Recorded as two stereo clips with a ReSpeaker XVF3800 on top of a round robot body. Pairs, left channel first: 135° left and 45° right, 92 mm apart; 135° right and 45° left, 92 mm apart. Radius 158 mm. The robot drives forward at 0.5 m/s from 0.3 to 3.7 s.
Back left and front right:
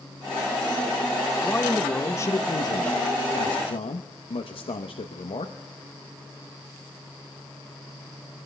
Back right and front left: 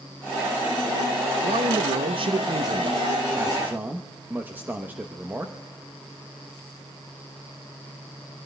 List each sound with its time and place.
1.4 s a man speaking: 55° left, 1.1 m; by 5.5 s 120° left, 1.1 m